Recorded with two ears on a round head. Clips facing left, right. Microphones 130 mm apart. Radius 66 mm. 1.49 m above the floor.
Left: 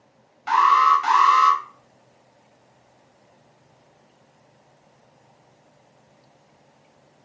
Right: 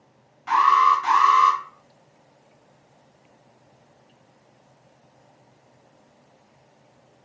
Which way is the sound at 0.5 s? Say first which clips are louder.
Left 1 dB; 55° left (ahead or behind).